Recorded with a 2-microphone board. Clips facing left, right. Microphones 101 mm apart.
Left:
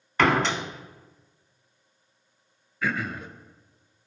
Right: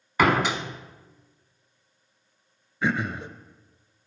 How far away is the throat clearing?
About 0.6 m.